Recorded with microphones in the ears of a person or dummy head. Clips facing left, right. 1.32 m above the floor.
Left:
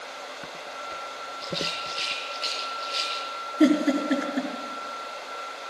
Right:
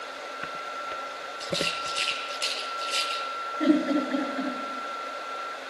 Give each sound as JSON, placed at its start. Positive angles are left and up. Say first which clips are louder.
{"t": 1.4, "sound": "a rattle", "louder": "right 2 dB", "side_deg": -60, "distance_m": 2.5}
{"t": 3.6, "sound": "a giggle", "louder": "left 2 dB", "side_deg": 60, "distance_m": 5.0}